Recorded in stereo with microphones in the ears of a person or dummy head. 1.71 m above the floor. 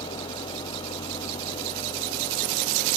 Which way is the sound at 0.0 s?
30° left (ahead or behind).